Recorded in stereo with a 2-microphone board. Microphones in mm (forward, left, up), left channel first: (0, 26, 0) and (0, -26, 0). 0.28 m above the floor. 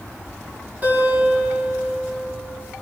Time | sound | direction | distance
0.8 | a guitar | 35° right (ahead or behind) | 2.5 m